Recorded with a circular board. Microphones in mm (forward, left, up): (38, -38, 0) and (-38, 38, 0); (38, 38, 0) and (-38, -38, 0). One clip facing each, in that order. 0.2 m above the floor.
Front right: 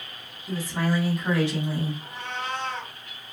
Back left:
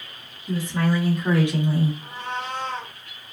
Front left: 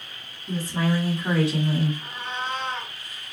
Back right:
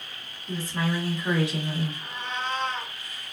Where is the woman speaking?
10° left, 1.3 m; by 1.9 s 95° left, 1.4 m.